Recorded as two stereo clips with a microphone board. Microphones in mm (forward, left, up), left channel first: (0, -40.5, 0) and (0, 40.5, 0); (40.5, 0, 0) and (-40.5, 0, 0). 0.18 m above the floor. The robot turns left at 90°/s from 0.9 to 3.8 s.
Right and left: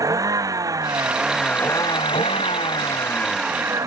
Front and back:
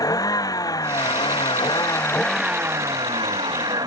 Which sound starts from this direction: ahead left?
A vehicle, at 0.0 s.